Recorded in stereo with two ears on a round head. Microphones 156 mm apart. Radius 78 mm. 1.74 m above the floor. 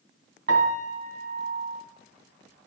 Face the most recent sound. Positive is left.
turn(degrees=-70)  # may be behind; listen again after turning